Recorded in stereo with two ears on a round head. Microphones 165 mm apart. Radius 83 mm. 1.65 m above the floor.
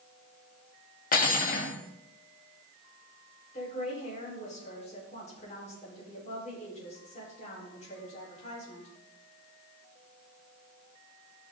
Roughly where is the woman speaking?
Left.